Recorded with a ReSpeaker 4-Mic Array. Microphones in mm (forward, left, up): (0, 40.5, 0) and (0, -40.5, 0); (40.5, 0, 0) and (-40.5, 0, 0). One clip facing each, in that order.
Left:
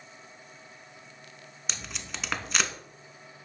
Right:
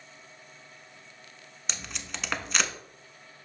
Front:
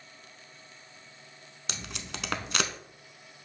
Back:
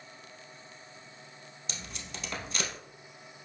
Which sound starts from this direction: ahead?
Tape being pulled, at 1.7 s.